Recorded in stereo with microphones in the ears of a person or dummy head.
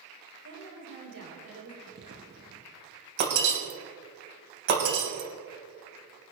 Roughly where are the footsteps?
Right.